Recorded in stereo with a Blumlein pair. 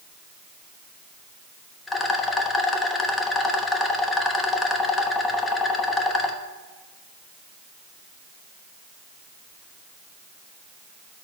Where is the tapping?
I don't hear tapping.